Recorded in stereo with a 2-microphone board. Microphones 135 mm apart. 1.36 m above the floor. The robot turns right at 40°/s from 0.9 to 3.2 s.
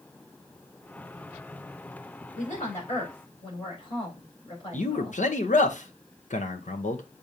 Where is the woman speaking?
110° left, 4 m; by 5.2 s 140° left, 4 m.